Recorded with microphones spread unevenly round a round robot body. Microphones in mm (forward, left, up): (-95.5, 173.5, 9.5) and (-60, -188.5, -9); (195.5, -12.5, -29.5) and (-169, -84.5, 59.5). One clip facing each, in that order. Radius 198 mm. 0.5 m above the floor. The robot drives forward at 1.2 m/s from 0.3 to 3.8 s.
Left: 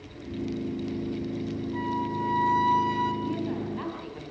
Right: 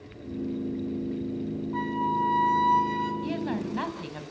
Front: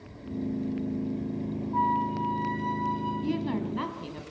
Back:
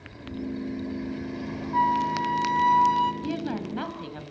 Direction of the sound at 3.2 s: 80° right.